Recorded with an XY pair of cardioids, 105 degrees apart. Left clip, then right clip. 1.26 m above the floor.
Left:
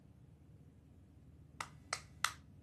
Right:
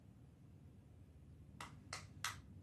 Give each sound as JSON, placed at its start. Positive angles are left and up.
{"t": 1.6, "sound": "a clap", "azimuth_deg": 60, "distance_m": 0.7}